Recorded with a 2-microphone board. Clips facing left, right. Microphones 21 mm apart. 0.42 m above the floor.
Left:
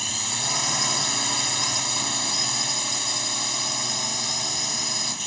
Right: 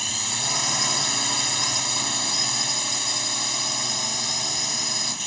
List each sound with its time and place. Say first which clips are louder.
0.0 s a drone: right 1 dB; 5° right (ahead or behind)